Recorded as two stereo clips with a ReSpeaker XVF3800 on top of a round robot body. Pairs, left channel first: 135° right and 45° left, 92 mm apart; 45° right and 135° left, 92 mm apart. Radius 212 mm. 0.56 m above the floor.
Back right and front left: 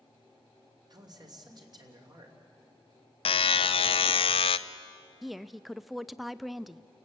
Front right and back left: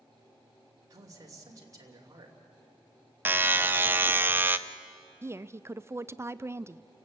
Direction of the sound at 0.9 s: 85° left.